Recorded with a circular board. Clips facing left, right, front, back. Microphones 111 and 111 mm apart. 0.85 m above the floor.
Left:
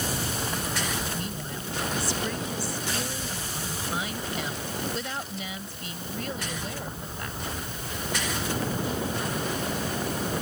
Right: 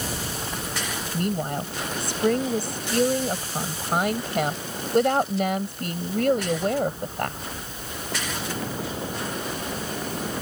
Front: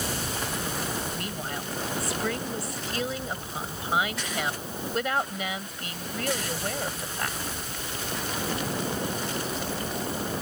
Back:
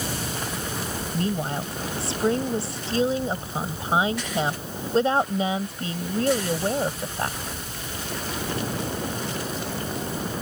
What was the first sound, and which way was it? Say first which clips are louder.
A woman speaking: right 8 dB, back 7 dB; 120° right.